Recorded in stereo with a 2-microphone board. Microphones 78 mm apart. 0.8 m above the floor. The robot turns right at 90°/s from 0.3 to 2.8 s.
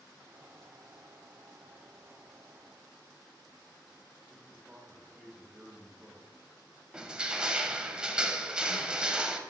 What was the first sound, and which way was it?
A man speaking, 10° right (ahead or behind).